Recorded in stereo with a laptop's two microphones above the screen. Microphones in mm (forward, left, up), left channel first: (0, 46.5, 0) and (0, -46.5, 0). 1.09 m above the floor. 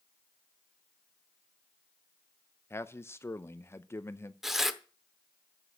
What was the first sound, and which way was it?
A man speaking, 30° left (ahead or behind).